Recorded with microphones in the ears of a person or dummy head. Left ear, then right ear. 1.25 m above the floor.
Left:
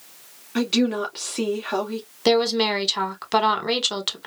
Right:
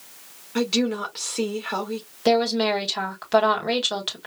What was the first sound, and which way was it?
A woman speaking, 5° left (ahead or behind).